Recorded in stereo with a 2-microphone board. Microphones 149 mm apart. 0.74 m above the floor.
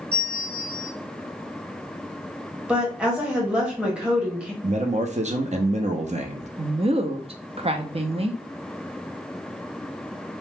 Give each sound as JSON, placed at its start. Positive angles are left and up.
{"t": 0.1, "sound": "a bell", "side_deg": 10, "distance_m": 1.9}
{"t": 2.7, "sound": "a woman speaking", "side_deg": -10, "distance_m": 1.1}
{"t": 4.6, "sound": "a man speaking", "side_deg": -50, "distance_m": 0.6}
{"t": 6.6, "sound": "a woman speaking", "side_deg": -40, "distance_m": 0.5}